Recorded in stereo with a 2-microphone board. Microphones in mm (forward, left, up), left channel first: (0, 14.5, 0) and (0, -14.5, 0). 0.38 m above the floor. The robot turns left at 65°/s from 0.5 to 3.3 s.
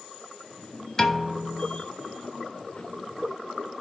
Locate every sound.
1.0 s a piano: 25° left, 0.6 m; by 1.8 s 30° right, 0.6 m